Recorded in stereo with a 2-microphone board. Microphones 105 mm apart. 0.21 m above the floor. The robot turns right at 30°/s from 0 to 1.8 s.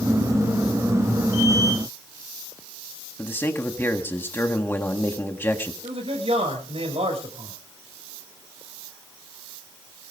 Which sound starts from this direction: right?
A man speaking, at 5.8 s.